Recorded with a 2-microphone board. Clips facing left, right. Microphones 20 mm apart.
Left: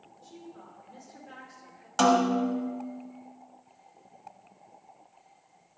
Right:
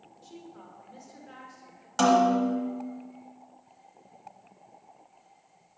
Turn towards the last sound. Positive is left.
turn(degrees=5)  # may be behind; listen again after turning